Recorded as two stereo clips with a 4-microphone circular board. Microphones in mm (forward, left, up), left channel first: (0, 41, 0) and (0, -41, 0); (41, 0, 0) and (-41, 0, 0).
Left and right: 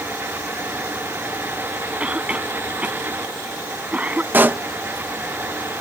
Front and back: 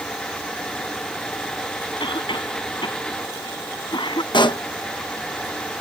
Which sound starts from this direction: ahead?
A cough, at 2.0 s.